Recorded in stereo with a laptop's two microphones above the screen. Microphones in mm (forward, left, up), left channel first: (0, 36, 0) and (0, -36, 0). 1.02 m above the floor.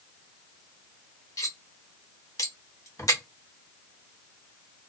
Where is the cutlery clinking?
50° left (ahead or behind), 0.9 m.